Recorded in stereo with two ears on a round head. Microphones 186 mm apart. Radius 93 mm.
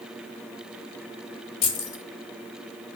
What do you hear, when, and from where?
1.6 s keys jangling: 40° left (ahead or behind), 2.5 m